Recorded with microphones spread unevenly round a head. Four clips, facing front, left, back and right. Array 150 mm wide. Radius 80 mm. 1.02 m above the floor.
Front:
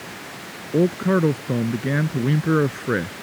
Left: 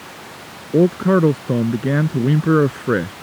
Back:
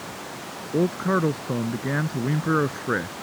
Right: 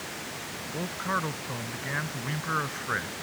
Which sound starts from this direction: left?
A man speaking, at 0.7 s.